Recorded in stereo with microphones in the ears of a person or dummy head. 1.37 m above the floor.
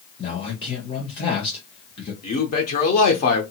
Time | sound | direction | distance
0.2 | a man speaking | 35° left (ahead or behind) | 0.8 m
2.2 | a man speaking | 45° left (ahead or behind) | 0.7 m